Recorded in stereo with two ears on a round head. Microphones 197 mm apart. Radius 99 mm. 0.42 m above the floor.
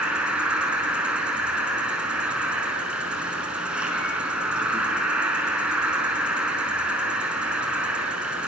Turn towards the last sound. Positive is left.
turn(degrees=-5)  # may be behind; listen again after turning